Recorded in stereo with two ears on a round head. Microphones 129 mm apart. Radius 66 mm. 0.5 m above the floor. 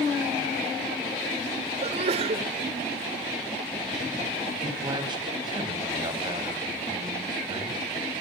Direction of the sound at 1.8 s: 45° right (ahead or behind).